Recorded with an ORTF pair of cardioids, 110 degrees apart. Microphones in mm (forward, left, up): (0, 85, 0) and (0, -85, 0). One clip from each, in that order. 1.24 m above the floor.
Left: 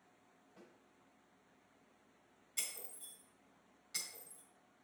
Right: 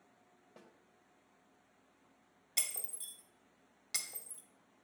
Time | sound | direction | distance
0.6 | a snare drum | 70° right | 1.9 m
2.6 | breaking glass | 70° right | 2.0 m